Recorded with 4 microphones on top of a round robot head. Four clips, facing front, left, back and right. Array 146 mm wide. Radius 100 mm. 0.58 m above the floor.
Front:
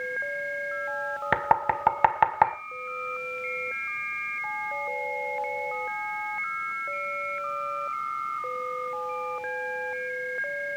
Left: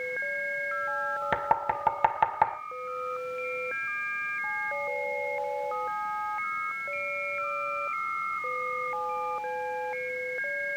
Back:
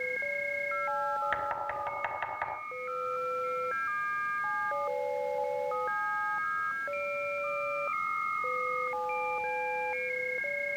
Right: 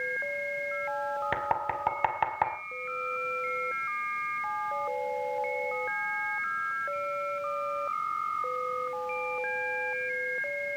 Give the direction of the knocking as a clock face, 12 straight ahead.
12 o'clock.